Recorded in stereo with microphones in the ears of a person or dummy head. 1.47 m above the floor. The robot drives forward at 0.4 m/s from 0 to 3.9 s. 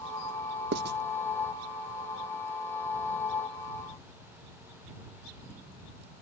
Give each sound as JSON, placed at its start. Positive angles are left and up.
{"t": 0.7, "sound": "writing", "side_deg": -60}